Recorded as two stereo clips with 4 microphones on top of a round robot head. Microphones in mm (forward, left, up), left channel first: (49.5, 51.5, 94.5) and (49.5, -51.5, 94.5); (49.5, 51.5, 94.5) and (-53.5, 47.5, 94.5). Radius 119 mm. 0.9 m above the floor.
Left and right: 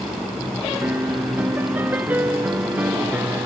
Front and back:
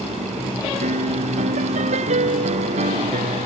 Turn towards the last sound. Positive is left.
turn(degrees=-165)